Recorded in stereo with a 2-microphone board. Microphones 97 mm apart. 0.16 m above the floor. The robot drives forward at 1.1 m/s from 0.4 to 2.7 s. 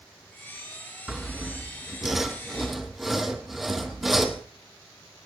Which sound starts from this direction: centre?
Sawing, at 1.1 s.